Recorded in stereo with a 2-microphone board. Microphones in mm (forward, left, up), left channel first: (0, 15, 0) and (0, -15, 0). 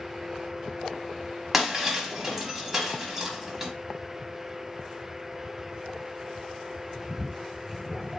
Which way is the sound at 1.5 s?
10° right (ahead or behind).